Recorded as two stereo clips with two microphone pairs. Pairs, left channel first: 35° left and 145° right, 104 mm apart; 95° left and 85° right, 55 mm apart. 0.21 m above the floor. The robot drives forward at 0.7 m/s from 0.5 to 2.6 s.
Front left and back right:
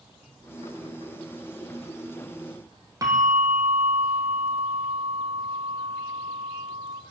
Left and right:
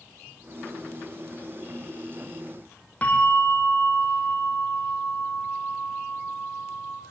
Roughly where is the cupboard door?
No cupboard door in this recording.